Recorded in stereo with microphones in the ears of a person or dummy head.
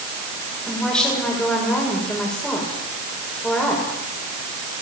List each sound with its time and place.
0.7 s a woman speaking: 10° left (ahead or behind), 7 m